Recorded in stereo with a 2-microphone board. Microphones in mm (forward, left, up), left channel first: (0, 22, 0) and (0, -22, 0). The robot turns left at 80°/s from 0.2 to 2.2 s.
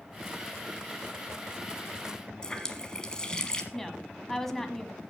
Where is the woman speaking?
10° left (ahead or behind), 1.1 m.